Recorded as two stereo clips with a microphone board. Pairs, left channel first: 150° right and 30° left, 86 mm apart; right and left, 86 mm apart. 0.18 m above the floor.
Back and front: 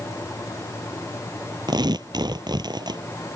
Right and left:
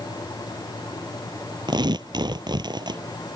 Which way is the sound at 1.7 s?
65° left.